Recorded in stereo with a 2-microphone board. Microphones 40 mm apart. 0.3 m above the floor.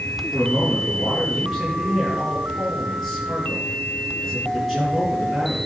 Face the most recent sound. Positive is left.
turn(degrees=0)  # may be behind; listen again after turning